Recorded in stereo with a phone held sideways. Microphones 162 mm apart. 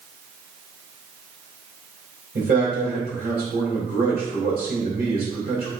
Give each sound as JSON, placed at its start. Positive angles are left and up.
{"t": 2.4, "sound": "a man speaking", "side_deg": -75, "distance_m": 3.0}